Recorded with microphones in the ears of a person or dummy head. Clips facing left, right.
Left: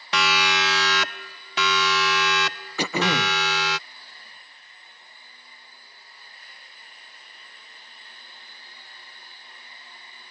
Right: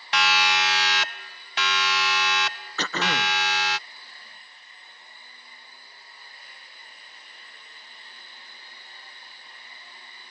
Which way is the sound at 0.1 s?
80° left.